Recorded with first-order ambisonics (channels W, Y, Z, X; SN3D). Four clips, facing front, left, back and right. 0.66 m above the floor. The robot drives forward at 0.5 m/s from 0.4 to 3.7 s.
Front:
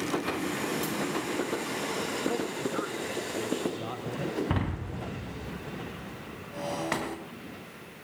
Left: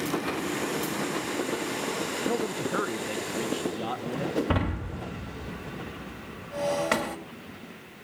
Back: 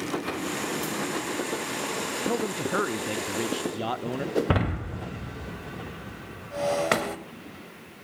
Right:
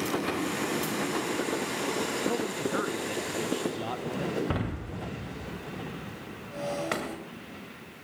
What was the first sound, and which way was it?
A man speaking, 150° left.